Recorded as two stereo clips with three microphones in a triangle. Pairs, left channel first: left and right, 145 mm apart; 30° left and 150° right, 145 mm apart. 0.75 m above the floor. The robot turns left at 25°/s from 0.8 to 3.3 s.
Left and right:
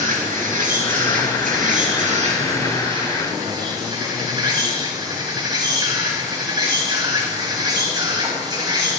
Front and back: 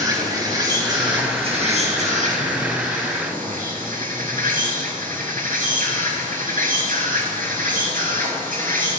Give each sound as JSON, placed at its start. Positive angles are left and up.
{"t": 0.0, "sound": "an insect", "azimuth_deg": -90, "distance_m": 8.0}